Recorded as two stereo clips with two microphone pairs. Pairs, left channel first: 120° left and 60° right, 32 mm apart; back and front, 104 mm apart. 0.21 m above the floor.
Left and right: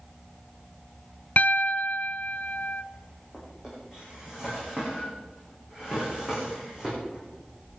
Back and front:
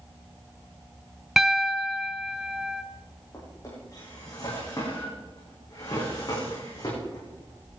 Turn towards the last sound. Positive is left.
turn(degrees=-130)